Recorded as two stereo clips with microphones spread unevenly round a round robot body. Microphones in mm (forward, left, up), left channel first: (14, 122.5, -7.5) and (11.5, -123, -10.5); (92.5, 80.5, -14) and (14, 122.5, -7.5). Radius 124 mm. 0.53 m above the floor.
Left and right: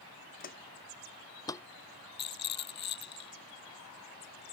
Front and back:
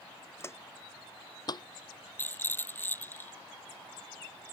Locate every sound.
0.4 s footsteps: 35° left; by 1.6 s 10° left
2.2 s a rattle: 40° left